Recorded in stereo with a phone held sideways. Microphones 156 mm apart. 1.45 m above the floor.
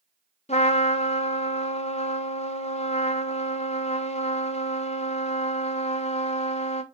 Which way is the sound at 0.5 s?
45° left (ahead or behind).